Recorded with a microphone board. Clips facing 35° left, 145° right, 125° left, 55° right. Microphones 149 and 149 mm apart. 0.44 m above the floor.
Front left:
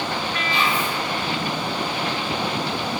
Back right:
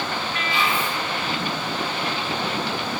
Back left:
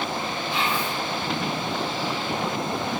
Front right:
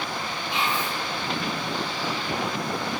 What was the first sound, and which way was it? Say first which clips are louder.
Whispering: front left 1 dB, even; 5° left.